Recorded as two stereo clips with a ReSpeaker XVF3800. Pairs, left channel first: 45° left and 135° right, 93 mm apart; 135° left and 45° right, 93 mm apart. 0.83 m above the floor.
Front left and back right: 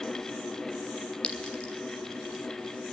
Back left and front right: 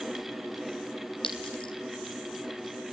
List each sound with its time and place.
1.2 s a clink: 125° left, 4.5 m